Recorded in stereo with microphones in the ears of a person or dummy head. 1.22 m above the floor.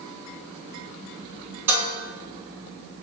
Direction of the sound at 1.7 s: 10° right (ahead or behind).